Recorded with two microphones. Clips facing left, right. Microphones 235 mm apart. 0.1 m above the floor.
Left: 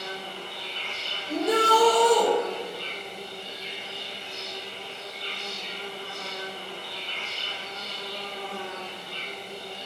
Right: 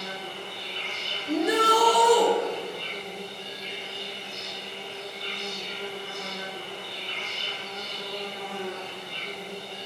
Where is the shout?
15° right (ahead or behind), 1.2 m.